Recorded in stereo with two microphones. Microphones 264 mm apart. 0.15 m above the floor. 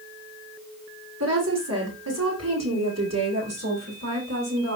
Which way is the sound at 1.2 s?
80° right.